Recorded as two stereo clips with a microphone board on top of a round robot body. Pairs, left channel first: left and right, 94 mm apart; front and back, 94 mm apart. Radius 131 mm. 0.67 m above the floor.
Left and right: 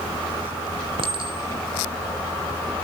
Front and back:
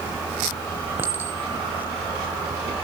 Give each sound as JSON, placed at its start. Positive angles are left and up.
{"t": 1.0, "sound": "a clink", "azimuth_deg": -110, "distance_m": 2.5}